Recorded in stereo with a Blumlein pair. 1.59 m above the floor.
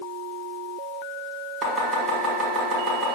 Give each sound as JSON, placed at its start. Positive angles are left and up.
{"t": 1.6, "sound": "chopping", "azimuth_deg": -15, "distance_m": 1.4}